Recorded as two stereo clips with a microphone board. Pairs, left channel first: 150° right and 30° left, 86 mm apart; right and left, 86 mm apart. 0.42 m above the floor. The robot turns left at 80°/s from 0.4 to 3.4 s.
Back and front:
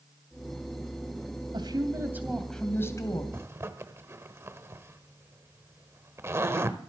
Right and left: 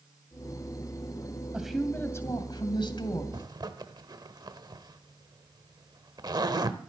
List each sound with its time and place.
1.5 s a woman speaking: 15° left, 2.5 m; by 3.2 s 125° right, 2.5 m
3.3 s a zipper: 85° left, 1.1 m; by 6.8 s 80° left, 1.1 m